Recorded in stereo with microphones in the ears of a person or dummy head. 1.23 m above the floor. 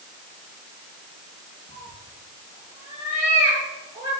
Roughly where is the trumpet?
No trumpet in this recording.